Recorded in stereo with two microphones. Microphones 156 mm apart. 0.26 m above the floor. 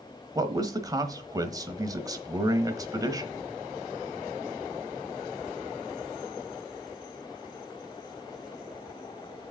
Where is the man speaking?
25° right (ahead or behind), 1.1 m.